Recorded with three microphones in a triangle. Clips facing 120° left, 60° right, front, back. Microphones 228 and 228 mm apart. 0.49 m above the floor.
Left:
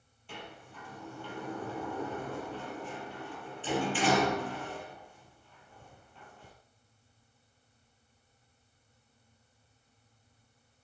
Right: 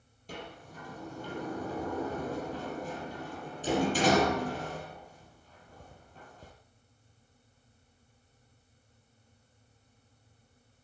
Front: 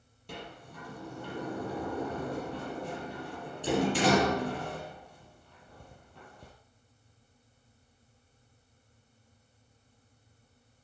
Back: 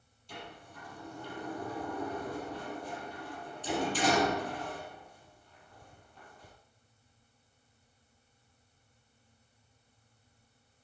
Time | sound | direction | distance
0.3 | a sliding door | 15° right | 4.5 m